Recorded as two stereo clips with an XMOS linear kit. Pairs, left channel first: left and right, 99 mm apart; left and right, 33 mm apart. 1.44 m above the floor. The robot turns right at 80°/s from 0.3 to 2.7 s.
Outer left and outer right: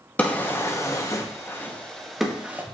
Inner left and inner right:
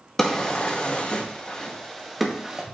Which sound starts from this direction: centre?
A drawer, at 0.2 s.